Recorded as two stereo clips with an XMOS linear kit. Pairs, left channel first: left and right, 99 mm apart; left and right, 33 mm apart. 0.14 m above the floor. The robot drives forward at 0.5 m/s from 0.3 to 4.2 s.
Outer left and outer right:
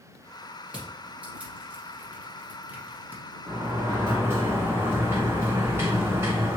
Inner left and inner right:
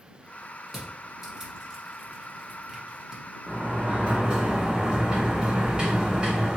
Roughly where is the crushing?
Centre.